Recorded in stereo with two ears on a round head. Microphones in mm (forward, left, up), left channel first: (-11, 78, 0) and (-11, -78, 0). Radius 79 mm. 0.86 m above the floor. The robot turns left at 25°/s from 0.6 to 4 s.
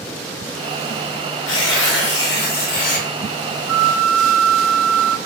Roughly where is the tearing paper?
Left.